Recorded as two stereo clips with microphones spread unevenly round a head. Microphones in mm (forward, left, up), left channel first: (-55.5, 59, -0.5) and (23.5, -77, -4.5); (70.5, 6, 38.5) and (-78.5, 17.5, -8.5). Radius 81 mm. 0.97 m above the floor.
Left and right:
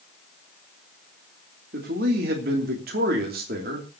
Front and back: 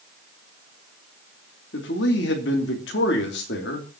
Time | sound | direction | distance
1.7 | a man speaking | 25° right | 3 m